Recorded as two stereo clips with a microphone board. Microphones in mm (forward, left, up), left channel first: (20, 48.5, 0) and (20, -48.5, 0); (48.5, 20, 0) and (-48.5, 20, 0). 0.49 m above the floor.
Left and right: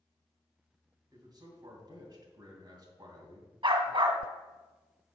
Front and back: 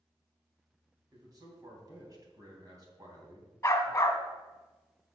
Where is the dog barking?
60° right, 1.5 m.